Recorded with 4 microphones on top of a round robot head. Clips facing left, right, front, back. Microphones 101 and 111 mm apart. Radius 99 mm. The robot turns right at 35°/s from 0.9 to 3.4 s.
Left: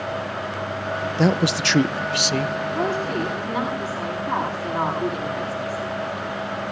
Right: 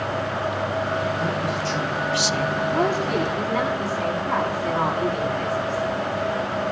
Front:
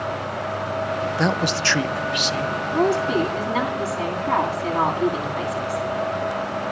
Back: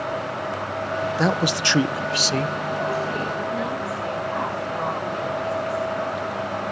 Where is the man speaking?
90° left, 0.8 m; by 2.5 s 140° left, 0.8 m.